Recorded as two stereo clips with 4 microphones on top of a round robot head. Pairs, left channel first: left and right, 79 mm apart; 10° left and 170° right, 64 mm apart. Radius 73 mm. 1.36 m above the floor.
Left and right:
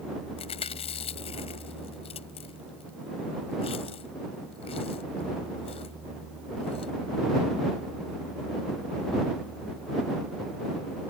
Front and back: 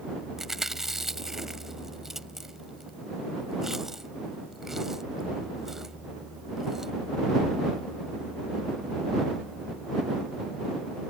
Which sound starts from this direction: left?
Chewing, at 0.4 s.